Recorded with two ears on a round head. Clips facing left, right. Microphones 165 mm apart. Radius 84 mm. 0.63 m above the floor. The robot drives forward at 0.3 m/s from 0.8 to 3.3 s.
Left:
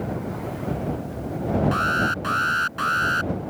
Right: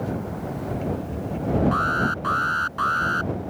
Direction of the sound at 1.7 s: 30° left (ahead or behind).